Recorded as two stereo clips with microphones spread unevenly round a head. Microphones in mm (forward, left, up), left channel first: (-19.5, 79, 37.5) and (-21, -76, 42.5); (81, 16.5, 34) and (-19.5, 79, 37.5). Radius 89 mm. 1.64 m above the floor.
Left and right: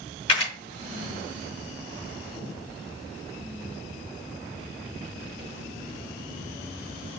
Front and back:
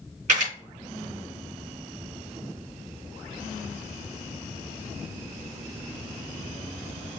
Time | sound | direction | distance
0.3 | a camera shutter | 140° left | 3 m